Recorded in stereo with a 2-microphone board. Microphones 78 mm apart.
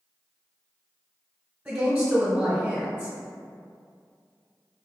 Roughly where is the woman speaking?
Centre.